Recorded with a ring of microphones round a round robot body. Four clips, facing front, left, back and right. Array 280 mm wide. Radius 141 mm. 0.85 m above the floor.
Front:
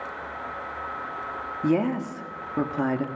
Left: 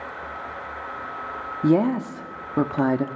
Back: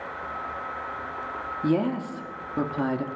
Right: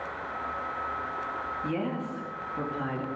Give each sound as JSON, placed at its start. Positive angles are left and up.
{"t": 1.6, "sound": "a woman speaking", "azimuth_deg": 85, "distance_m": 1.8}